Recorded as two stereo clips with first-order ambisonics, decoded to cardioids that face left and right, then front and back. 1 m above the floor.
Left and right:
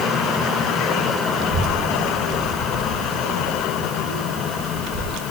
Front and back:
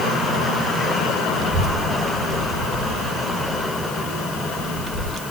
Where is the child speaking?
120° right, 1.7 m.